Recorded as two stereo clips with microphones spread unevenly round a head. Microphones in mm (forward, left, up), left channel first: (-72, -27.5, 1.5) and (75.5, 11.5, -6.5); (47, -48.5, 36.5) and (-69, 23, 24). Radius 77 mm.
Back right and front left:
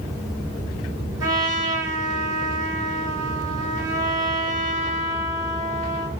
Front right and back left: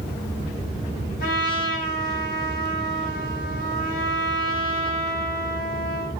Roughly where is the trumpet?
Ahead right.